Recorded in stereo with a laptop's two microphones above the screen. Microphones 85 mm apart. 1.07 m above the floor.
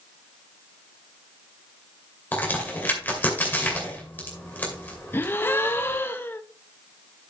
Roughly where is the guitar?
I don't hear a guitar.